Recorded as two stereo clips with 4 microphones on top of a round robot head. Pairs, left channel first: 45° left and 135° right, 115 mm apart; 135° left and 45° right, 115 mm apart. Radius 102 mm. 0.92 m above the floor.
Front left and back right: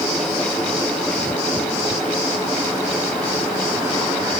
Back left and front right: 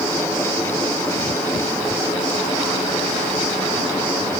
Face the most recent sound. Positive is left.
No sound to turn to.